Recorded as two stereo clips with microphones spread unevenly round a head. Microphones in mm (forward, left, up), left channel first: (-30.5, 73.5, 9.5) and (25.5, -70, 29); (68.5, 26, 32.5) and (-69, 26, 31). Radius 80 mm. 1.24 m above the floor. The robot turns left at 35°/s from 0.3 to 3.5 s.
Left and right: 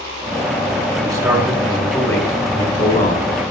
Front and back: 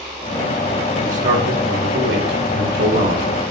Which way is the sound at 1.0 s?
135° right.